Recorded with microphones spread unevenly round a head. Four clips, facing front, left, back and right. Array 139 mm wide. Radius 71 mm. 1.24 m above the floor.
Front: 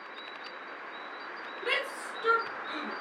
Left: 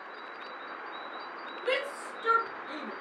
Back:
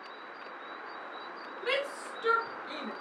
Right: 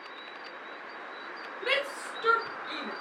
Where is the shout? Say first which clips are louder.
Even, back 2 dB; 85° right, 4.5 m; by 2.9 s 90° right, 4 m.